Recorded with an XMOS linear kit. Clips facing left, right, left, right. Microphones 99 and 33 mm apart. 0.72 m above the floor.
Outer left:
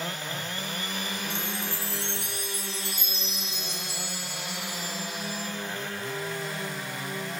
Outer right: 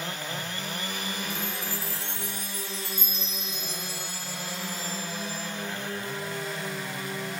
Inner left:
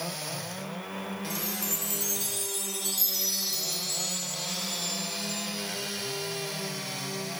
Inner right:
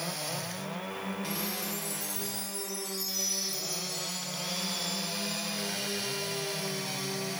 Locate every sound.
1.3 s a chime: 60° left (ahead or behind), 1.2 m